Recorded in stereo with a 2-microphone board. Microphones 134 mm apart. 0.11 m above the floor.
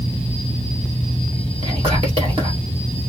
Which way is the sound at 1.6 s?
45° right (ahead or behind).